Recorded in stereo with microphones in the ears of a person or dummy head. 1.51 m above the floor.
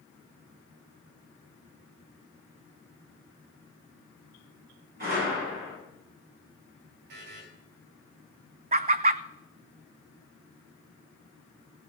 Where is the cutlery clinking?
No cutlery clinking in this recording.